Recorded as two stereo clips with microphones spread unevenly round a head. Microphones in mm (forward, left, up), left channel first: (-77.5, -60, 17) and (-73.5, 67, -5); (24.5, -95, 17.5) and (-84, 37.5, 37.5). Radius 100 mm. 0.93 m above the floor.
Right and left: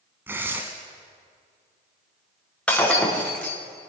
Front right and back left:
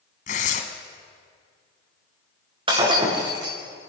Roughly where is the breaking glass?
Behind.